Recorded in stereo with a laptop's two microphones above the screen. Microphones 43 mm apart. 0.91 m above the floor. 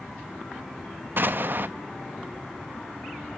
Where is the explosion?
55° right (ahead or behind), 1.1 m.